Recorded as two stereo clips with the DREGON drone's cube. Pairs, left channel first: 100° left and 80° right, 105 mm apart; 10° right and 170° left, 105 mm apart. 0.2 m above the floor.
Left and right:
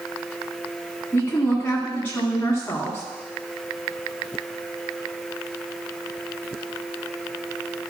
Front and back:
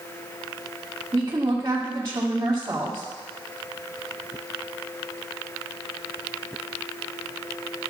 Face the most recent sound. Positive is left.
turn(degrees=160)